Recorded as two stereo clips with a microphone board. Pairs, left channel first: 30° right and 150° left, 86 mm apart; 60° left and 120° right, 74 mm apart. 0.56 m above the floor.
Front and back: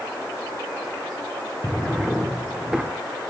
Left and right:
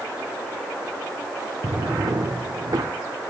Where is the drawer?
125° right, 0.8 m.